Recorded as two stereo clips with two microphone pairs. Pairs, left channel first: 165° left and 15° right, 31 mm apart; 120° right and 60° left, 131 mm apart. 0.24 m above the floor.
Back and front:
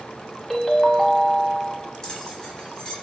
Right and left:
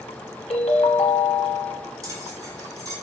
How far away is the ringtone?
About 0.7 m.